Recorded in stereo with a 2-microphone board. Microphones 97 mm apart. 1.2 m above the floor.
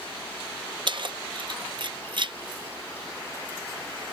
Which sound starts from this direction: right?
Keys jangling, at 0.9 s.